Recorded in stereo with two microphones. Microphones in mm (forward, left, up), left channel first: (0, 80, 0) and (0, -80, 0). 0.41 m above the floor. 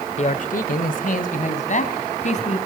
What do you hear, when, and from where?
0.2 s a man speaking: 45° left (ahead or behind), 1.2 m